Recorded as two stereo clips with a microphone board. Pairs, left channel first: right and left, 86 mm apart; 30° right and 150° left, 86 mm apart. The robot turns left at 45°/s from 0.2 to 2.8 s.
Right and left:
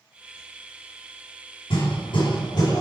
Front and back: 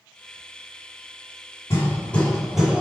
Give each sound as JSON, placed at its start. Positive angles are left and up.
{"t": 1.7, "sound": "hammering", "azimuth_deg": -85, "distance_m": 4.0}